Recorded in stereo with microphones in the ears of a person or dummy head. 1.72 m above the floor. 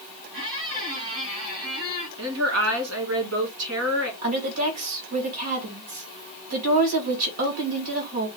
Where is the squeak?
75° right (ahead or behind), 3 m.